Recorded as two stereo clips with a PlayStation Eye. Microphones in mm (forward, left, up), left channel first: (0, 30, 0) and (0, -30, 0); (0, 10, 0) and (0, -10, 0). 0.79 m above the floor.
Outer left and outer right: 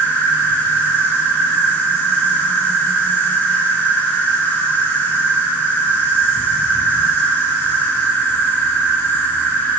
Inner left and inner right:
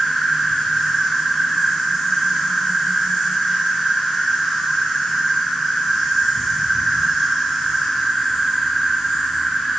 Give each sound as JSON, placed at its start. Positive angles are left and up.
{"t": 0.0, "sound": "an insect", "side_deg": 30, "distance_m": 1.0}